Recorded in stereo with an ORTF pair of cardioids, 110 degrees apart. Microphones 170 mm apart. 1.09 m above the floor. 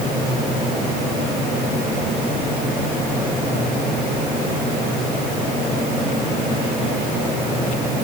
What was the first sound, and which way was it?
Only background noise.